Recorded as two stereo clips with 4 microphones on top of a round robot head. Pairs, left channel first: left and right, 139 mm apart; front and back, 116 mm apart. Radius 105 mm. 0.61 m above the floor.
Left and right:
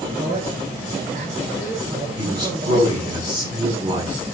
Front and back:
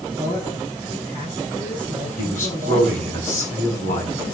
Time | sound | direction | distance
0.2 | a man speaking | 50° right | 9 m
2.2 | a man speaking | 20° right | 5 m